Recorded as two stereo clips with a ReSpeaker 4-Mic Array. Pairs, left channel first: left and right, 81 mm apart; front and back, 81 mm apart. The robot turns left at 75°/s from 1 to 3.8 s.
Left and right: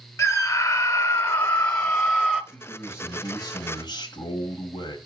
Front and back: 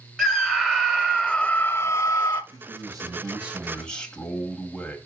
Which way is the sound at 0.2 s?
80° left.